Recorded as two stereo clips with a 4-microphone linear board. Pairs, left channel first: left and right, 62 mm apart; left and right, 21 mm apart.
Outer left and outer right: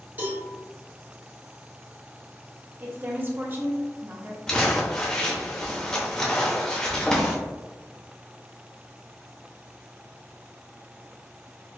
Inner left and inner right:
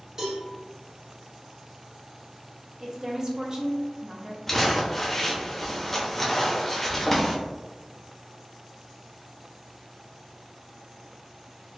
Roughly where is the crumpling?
Centre.